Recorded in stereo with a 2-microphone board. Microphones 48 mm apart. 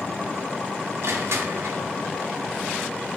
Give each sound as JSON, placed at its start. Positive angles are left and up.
{"t": 1.0, "sound": "crushing", "side_deg": -75, "distance_m": 1.1}